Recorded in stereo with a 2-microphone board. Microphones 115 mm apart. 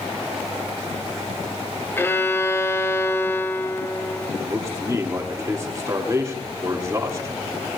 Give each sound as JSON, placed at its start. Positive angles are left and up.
{"t": 2.0, "sound": "a violin", "side_deg": 20, "distance_m": 0.8}
{"t": 4.4, "sound": "a man speaking", "side_deg": -25, "distance_m": 1.5}